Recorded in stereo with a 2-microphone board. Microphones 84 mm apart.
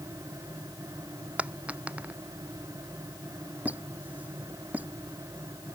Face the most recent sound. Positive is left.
turn(degrees=-15)  # may be behind; listen again after turning